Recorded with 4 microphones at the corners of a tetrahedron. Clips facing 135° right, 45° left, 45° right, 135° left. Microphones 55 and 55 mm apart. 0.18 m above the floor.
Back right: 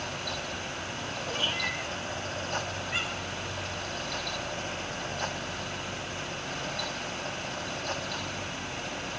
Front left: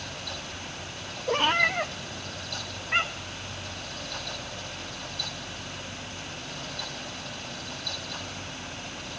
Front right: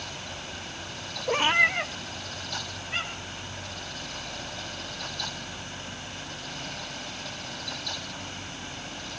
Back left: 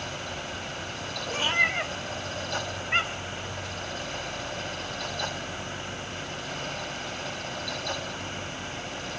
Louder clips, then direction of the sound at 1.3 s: Front left 10 dB, front right 3 dB; straight ahead.